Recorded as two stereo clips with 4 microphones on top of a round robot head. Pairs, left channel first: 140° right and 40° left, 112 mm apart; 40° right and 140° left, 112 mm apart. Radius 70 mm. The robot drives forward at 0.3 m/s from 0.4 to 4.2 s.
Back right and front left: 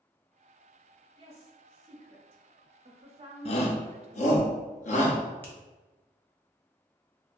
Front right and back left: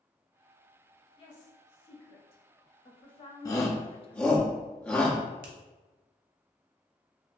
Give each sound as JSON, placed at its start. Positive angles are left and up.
{"t": 1.2, "sound": "a woman speaking", "azimuth_deg": 0, "distance_m": 1.4}
{"t": 3.5, "sound": "a shout", "azimuth_deg": -105, "distance_m": 0.7}
{"t": 5.4, "sound": "a finger snap", "azimuth_deg": 145, "distance_m": 0.7}